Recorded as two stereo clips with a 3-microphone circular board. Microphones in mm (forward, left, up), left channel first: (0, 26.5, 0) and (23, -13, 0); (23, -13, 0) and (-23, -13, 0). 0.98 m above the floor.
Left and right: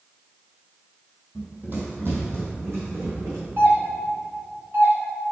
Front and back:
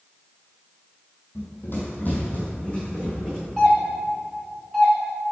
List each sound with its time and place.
1.4 s running footsteps: 5° right, 1.8 m; by 3.4 s 70° right, 3.5 m
3.6 s a doorbell: 80° right, 1.9 m